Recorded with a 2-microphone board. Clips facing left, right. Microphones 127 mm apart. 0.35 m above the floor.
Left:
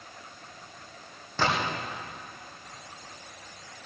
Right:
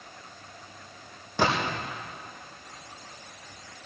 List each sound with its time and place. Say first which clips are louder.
1.4 s a gunshot: right 2 dB; 15° right (ahead or behind), 4 m